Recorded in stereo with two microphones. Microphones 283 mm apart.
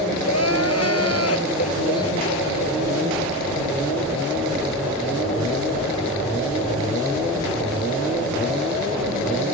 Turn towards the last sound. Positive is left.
turn(degrees=60)  # may be behind; listen again after turning